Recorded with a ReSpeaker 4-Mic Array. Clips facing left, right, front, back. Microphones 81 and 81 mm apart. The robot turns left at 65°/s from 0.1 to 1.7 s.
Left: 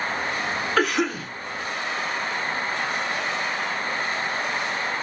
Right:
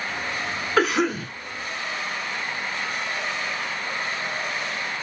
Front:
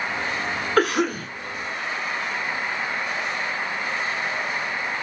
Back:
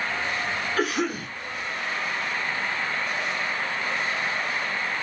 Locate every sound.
0.8 s a cough: 10° right, 1.3 m; by 1.3 s 45° right, 1.3 m